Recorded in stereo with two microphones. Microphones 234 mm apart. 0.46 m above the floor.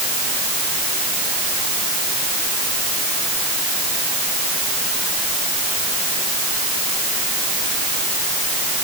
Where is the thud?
No thud in this recording.